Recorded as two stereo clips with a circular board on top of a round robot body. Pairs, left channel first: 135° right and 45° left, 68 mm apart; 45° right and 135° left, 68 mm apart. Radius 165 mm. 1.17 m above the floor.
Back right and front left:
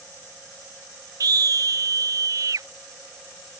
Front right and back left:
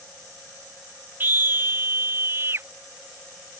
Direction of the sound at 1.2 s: 75° left.